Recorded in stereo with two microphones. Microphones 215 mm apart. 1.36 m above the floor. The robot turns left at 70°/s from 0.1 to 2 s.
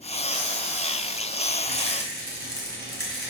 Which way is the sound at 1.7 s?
55° right (ahead or behind).